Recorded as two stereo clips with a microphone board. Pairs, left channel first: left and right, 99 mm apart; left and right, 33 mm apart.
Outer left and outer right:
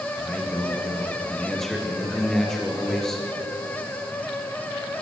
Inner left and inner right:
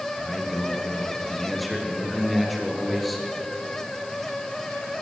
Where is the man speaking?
5° left (ahead or behind), 4 m.